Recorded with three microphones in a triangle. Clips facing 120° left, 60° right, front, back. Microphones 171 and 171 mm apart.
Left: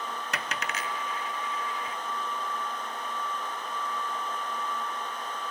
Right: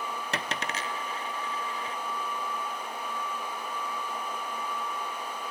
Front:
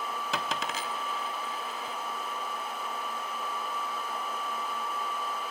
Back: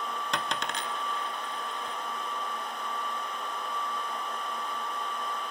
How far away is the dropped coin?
About 0.6 m.